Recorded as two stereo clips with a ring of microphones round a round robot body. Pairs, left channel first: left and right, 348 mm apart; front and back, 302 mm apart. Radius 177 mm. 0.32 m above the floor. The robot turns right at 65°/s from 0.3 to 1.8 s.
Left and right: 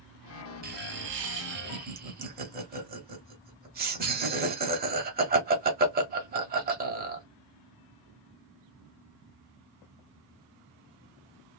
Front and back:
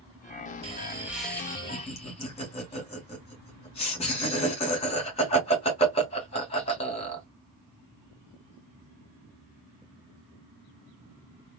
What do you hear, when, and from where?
0.6 s laughter: 130° right, 1.2 m; by 7.2 s 50° right, 1.2 m